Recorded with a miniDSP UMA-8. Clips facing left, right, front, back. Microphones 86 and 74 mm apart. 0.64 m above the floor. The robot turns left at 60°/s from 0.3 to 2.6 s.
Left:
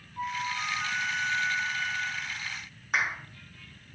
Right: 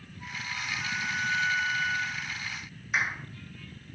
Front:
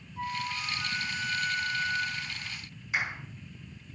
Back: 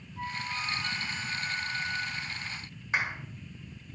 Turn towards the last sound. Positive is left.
turn(degrees=125)